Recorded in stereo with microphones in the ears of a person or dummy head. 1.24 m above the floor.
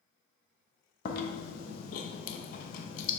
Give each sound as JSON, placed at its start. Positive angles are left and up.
{"t": 1.1, "sound": "chewing", "side_deg": 50, "distance_m": 1.0}